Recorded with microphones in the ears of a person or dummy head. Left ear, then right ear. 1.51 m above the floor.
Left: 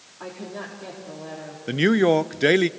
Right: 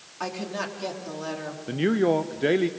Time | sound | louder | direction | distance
0.2 | a woman speaking | right 4 dB | 65° right (ahead or behind) | 4 m
1.7 | a man speaking | left 4 dB | 70° left (ahead or behind) | 0.6 m